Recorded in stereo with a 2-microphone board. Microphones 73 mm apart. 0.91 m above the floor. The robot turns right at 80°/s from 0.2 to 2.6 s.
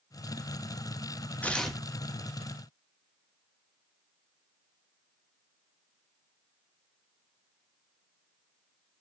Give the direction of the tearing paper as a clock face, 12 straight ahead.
7 o'clock.